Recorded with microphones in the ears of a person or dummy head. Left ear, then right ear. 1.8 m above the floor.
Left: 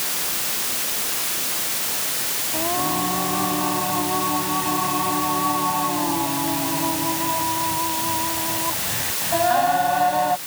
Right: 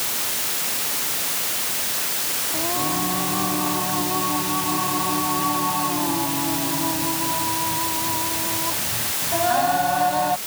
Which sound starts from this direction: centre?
Singing, at 2.5 s.